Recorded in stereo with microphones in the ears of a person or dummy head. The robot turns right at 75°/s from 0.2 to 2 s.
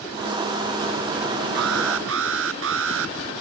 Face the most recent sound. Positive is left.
turn(degrees=-80)